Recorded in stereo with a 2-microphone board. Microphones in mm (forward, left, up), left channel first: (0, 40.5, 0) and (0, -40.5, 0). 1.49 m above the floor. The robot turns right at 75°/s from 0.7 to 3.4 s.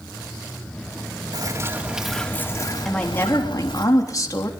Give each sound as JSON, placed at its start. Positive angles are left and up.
{"t": 1.3, "sound": "a bird", "azimuth_deg": -60, "distance_m": 3.5}
{"t": 2.9, "sound": "a woman speaking", "azimuth_deg": 5, "distance_m": 3.5}